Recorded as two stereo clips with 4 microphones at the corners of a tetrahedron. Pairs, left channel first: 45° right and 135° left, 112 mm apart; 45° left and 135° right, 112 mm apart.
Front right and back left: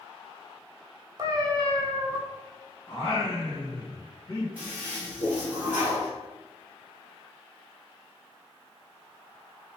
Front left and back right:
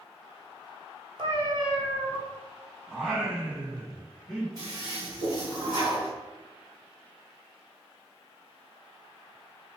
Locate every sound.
1.2 s a cat meowing: 175° right, 0.8 m
2.9 s singing: 55° right, 2.0 m
4.6 s a toilet flushing: 160° right, 1.4 m